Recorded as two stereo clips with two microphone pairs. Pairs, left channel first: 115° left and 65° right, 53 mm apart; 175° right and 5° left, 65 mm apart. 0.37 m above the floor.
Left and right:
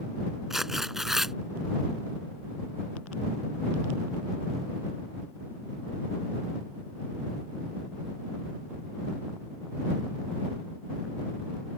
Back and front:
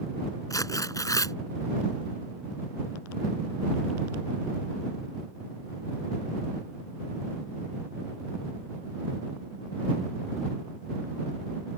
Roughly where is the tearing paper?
Behind right.